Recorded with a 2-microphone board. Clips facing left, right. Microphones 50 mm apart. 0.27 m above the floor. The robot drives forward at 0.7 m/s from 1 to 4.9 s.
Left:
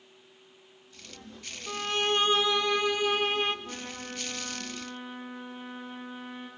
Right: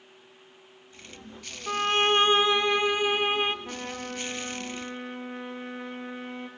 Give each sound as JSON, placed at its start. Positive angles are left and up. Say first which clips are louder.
{"t": 1.7, "sound": "a violin", "louder": "right 5 dB", "side_deg": -60, "distance_m": 0.7}
{"t": 3.6, "sound": "a trumpet", "louder": "right 4 dB", "side_deg": -70, "distance_m": 2.0}